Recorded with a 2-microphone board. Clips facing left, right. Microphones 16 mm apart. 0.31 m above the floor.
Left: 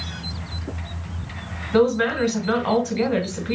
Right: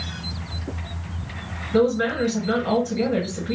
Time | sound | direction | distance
1.7 | a woman speaking | 35° left (ahead or behind) | 1.5 m